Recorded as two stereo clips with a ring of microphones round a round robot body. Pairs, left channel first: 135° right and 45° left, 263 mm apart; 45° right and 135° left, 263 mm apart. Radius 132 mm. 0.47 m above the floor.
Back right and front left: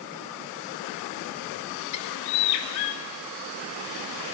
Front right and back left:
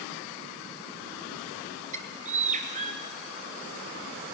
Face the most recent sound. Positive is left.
turn(degrees=-160)